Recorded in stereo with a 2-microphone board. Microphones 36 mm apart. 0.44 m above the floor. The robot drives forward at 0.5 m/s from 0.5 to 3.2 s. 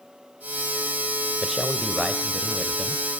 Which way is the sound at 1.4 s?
5° right (ahead or behind).